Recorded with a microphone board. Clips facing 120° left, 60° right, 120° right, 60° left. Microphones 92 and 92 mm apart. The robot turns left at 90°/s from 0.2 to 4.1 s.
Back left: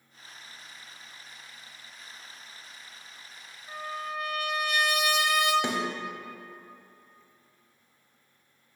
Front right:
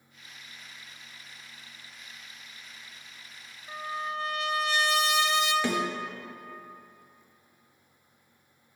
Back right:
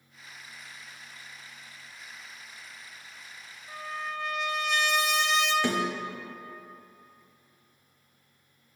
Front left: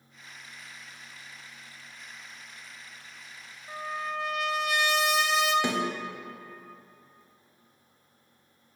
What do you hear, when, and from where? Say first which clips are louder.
3.7 s a trumpet: front right 1 dB, front left 2 dB; 15° left, 0.5 m; by 5.5 s 25° right, 0.5 m
5.6 s a snare drum: front right 2 dB, back right 1 dB; 90° left, 0.9 m